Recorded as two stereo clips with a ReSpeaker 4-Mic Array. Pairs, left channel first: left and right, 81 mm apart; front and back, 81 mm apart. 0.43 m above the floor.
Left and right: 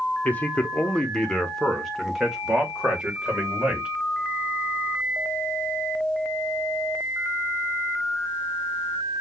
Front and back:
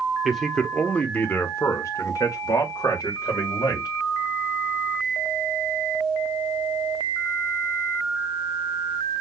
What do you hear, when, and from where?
0.2 s a man speaking: 95° left, 1.0 m; by 3.9 s 15° right, 1.9 m